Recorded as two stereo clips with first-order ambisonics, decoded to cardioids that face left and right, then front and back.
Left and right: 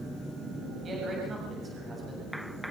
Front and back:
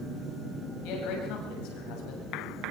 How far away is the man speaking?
About 7.5 m.